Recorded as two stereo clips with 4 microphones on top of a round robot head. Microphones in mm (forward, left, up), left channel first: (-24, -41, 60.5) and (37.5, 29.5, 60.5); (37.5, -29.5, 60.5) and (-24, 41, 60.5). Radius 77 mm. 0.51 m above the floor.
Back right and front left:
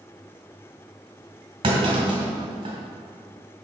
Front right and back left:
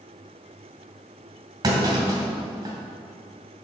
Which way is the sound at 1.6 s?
85° left.